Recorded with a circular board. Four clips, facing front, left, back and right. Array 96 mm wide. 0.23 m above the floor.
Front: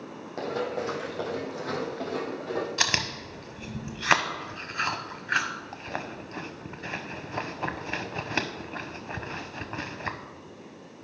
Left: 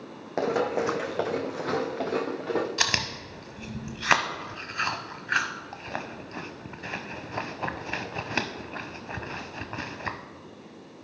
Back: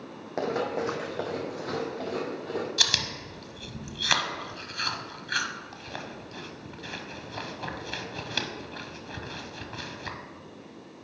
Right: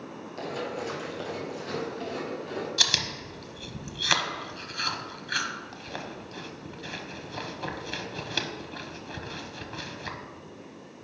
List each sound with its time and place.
0.4 s running footsteps: 115° left, 0.8 m; by 2.7 s 90° left, 1.9 m
2.8 s chewing: 45° left, 0.7 m